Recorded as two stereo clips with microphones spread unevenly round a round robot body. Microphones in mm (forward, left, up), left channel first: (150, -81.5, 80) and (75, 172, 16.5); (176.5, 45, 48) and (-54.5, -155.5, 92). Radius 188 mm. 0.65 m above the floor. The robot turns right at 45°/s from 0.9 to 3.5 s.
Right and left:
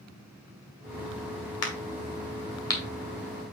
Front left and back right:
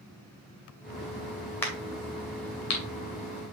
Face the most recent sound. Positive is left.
turn(degrees=45)